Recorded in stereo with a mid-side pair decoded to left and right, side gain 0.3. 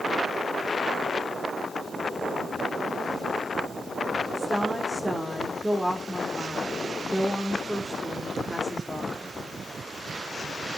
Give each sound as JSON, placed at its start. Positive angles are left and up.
{"t": 4.3, "sound": "a woman speaking", "azimuth_deg": -10, "distance_m": 3.5}